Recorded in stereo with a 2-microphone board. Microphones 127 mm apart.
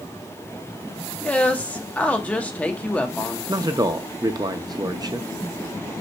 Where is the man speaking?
30° right (ahead or behind), 0.5 m.